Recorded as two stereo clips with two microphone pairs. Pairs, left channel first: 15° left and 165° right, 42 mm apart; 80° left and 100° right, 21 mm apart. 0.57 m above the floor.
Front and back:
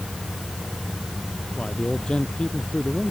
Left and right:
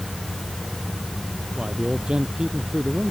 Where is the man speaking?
50° right.